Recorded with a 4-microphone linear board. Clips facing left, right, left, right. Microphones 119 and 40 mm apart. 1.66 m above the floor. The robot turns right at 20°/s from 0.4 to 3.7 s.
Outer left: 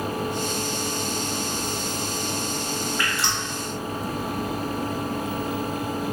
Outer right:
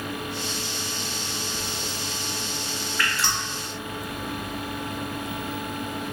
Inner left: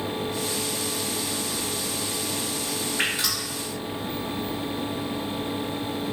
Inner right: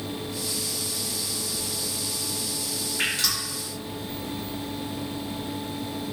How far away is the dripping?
About 1.0 m.